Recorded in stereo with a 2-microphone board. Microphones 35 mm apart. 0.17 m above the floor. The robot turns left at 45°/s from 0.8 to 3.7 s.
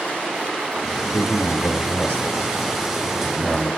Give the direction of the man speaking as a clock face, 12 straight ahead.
9 o'clock.